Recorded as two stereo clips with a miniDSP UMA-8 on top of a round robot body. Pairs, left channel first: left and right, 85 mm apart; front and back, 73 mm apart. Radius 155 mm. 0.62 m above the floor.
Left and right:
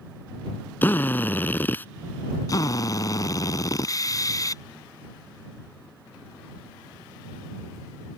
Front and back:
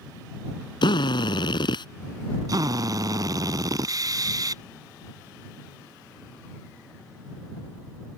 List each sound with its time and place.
0.8 s a drill: 20° left
2.5 s a drill: 140° left